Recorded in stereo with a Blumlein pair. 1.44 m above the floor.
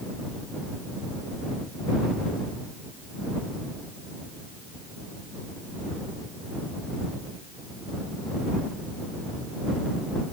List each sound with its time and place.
Only background noise.